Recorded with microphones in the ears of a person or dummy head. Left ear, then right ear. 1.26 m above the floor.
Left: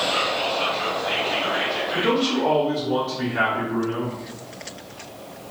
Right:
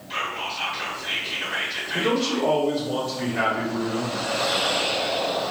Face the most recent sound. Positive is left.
turn(degrees=15)  # may be behind; listen again after turning